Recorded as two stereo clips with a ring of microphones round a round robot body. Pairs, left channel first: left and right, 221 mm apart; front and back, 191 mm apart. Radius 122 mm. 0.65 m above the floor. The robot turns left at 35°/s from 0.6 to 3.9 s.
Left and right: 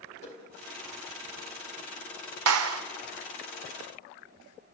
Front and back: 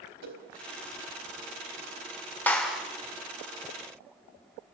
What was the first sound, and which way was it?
A whoosh, 150° left.